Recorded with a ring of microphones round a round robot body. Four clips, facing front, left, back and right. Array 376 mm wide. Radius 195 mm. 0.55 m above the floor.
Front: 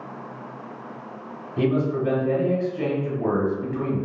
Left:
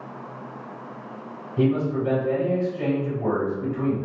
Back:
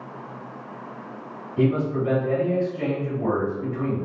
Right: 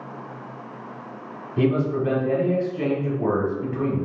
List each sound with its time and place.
1.6 s a man speaking: 65° right, 1.7 m